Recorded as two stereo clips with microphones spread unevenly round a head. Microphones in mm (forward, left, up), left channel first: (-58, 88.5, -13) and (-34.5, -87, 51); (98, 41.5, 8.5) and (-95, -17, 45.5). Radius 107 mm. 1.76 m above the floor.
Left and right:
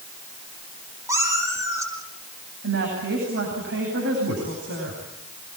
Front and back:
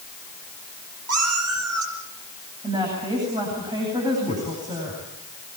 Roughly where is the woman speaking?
Right.